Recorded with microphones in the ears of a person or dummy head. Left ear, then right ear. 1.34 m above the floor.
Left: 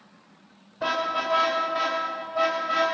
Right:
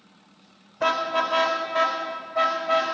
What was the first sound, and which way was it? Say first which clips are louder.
A car horn: right 3 dB; 30° right (ahead or behind).